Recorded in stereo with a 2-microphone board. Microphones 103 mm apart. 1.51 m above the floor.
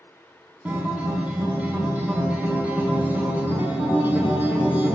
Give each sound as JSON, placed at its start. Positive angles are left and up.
{"t": 0.7, "sound": "a guitar", "side_deg": -15, "distance_m": 1.0}